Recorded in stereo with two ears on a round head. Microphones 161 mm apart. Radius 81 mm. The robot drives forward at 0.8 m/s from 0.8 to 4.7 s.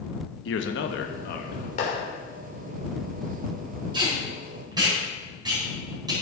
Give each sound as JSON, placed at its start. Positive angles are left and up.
{"t": 0.5, "sound": "a man speaking", "side_deg": 70, "distance_m": 1.0}
{"t": 1.8, "sound": "a clap", "side_deg": 45, "distance_m": 3.5}
{"t": 3.9, "sound": "tape being pulled", "side_deg": -25, "distance_m": 5.0}